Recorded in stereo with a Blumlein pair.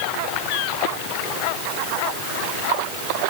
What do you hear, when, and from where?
Only background noise.